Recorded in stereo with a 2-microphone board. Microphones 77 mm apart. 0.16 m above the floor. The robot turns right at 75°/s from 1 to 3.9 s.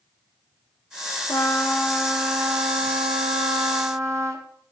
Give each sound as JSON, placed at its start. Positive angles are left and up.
{"t": 1.3, "sound": "a trumpet", "azimuth_deg": 125, "distance_m": 2.5}